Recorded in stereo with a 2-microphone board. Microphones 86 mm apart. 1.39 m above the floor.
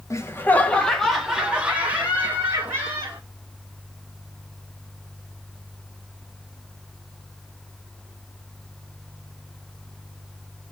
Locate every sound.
0.1 s laughter: 35° left (ahead or behind), 1.0 m; by 3.2 s 30° right (ahead or behind), 2 m